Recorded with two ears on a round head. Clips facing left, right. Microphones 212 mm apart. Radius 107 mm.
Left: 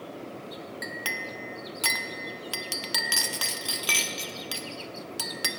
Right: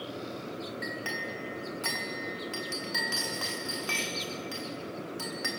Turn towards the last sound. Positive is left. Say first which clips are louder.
# right 1 dB
turn(degrees=50)  # may be behind; listen again after turning